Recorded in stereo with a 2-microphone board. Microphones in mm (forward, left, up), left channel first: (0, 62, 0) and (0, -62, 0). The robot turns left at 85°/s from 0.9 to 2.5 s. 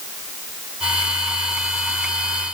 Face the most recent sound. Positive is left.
No sound to turn to.